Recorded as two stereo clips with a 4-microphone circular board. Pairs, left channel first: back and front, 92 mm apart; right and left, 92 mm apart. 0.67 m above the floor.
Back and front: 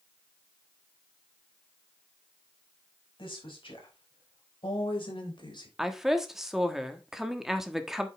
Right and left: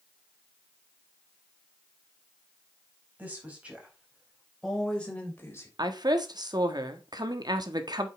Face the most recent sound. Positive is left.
turn(degrees=85)